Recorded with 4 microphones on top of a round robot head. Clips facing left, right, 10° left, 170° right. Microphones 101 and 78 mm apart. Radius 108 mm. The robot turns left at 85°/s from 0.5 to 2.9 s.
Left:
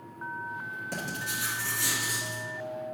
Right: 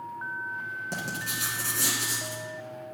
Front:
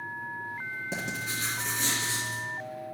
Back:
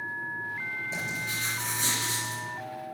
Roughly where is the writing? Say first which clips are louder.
Left 1 dB, even; ahead.